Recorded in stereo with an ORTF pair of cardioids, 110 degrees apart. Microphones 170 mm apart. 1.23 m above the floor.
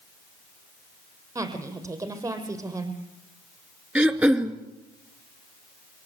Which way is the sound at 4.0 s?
10° right.